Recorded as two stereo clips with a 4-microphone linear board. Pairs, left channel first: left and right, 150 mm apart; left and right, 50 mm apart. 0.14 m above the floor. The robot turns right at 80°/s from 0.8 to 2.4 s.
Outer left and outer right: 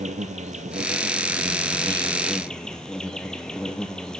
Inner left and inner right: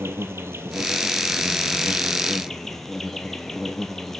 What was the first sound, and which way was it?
An insect, 120° right.